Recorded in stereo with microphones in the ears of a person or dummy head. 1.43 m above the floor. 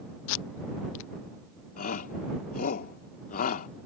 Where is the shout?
45° left (ahead or behind).